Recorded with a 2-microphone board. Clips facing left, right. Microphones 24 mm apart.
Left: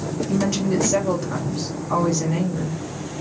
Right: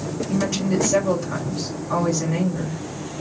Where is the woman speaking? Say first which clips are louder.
Left 1 dB; 5° left (ahead or behind), 1.0 m.